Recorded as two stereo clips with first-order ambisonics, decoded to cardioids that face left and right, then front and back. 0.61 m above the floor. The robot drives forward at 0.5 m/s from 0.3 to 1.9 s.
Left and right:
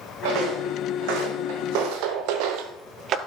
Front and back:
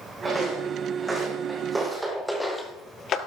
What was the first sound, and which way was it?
Footsteps, 95° right.